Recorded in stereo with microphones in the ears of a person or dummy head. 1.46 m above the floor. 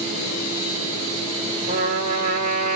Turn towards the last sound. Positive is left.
turn(degrees=-50)  # may be behind; listen again after turning